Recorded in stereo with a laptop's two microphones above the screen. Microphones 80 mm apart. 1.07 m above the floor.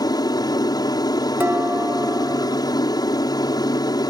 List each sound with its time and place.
0.0 s an aircraft: 55° left (ahead or behind)
1.4 s dishes clattering: 25° right (ahead or behind)